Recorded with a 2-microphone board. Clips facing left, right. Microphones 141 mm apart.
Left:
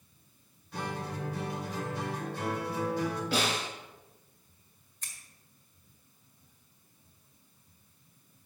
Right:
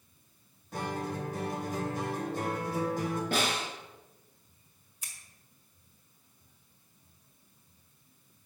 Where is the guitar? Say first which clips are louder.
Right 2 dB; 45° right (ahead or behind), 1.5 m.